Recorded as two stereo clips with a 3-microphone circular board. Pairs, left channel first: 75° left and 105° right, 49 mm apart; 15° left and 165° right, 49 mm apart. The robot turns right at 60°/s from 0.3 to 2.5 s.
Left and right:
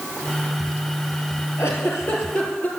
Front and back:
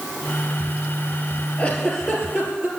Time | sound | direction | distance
1.6 | a giggle | 75° left | 3 m